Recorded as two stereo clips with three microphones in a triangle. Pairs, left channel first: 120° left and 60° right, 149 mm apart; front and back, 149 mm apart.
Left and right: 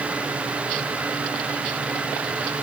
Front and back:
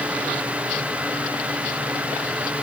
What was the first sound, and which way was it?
Only background noise.